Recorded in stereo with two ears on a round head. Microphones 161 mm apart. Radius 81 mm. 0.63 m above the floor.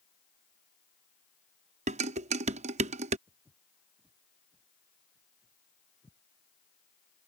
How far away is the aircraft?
I don't hear an aircraft.